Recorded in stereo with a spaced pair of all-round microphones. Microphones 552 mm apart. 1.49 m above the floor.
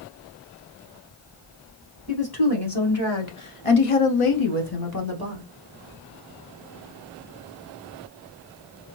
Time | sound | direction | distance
2.1 | a woman speaking | 40° left (ahead or behind) | 1.8 m